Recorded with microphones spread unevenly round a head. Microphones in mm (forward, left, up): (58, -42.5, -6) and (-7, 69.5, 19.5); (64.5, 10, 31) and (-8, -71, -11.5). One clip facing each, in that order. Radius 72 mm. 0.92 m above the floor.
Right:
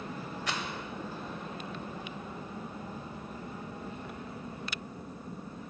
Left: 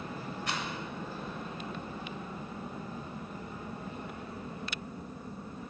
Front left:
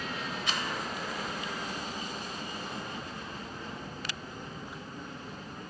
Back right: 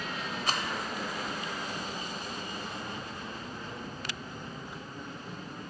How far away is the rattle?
About 0.9 m.